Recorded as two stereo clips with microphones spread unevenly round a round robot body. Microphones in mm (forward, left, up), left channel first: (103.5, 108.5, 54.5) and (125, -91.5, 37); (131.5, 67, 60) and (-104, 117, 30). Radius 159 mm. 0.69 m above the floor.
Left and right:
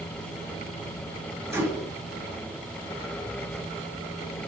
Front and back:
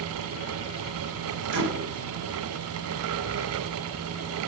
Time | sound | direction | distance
1.5 | a microwave | 160° right | 2.5 m